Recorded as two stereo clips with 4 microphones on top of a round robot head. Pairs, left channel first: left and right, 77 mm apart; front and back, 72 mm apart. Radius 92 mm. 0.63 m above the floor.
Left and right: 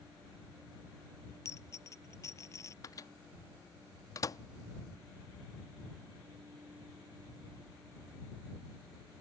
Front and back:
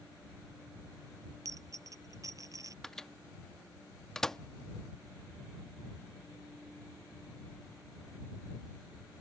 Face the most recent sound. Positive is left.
turn(degrees=80)